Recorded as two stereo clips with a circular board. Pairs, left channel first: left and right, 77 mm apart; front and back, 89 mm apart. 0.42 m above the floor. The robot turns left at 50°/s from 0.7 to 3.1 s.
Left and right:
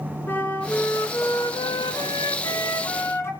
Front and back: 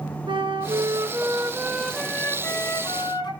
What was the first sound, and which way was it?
A flute, 155° left.